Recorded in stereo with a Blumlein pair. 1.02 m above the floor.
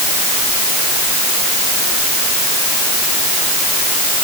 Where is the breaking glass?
I don't hear breaking glass.